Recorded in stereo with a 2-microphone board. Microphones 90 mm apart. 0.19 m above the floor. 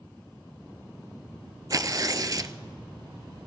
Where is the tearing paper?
40° right (ahead or behind), 0.6 m.